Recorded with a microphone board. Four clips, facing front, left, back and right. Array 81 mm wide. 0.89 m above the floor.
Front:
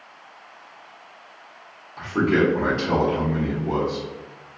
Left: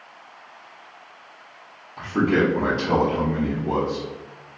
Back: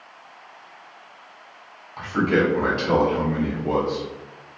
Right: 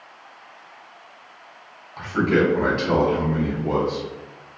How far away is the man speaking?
About 2.0 m.